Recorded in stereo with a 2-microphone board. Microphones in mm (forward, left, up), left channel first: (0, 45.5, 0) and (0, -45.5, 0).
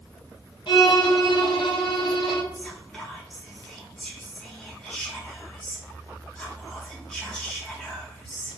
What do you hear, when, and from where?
0.7 s a violin: 70° left (ahead or behind), 0.7 m
2.5 s whispering: 5° left (ahead or behind), 1.5 m